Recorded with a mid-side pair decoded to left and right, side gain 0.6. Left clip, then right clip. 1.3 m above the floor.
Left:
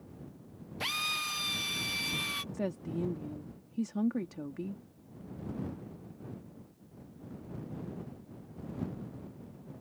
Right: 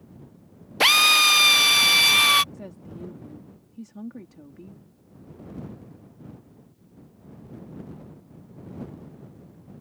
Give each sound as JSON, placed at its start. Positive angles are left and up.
{"t": 0.8, "sound": "a drill", "azimuth_deg": -65}
{"t": 2.5, "sound": "a woman speaking", "azimuth_deg": 40}